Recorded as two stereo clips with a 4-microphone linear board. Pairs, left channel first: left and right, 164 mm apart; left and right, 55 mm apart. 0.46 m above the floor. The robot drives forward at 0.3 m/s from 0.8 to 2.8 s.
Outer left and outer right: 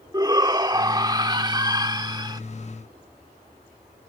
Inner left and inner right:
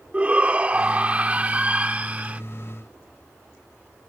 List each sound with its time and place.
0.1 s a shout: 25° right (ahead or behind)